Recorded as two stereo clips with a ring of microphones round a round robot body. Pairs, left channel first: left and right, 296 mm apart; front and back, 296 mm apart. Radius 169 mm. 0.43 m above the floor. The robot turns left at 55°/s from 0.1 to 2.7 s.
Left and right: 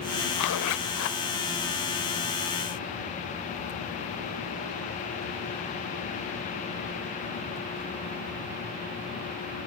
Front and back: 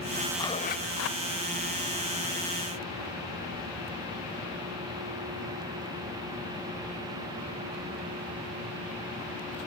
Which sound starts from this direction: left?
A zipper, at 0.4 s.